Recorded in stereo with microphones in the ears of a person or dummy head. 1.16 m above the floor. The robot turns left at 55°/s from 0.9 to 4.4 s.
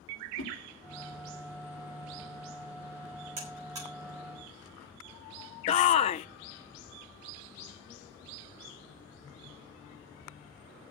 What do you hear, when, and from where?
0.4 s a whoosh: 50° left (ahead or behind), 3 m
3.4 s a buzzer: 40° right (ahead or behind), 8.5 m; by 3.9 s 10° right (ahead or behind), 8.5 m
5.7 s a shout: 30° left (ahead or behind), 0.5 m